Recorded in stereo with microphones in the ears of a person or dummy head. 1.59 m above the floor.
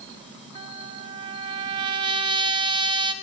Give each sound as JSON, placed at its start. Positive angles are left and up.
{"t": 0.6, "sound": "a trumpet", "side_deg": -25, "distance_m": 0.7}